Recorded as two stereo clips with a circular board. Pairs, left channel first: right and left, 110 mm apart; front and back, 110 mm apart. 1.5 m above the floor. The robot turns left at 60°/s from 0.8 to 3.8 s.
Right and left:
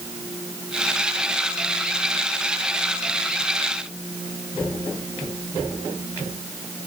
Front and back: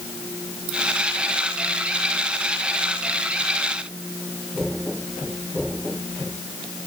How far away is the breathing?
No breathing in this recording.